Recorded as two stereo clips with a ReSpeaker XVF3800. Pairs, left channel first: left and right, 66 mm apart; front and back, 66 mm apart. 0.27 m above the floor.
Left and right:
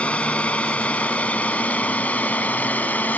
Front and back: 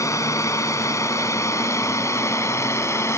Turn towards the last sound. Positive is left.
turn(degrees=30)